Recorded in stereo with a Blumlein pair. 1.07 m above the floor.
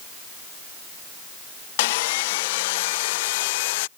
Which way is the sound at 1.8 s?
50° left.